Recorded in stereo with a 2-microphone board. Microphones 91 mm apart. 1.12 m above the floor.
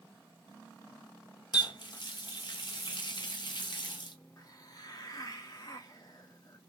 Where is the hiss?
45° left (ahead or behind), 0.9 m.